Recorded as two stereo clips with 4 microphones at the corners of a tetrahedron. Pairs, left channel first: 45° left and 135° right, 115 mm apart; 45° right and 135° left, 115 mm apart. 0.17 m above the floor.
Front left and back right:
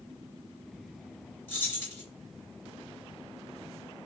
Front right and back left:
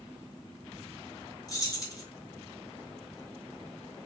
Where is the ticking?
I don't hear ticking.